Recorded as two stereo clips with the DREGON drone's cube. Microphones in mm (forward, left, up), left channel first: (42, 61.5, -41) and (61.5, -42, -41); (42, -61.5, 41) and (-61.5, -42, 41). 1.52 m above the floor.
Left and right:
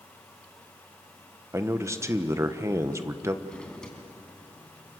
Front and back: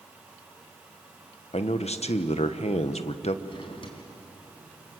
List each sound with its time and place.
1.5 s a man speaking: 15° right, 1.2 m
3.5 s a drawer: 15° left, 3.5 m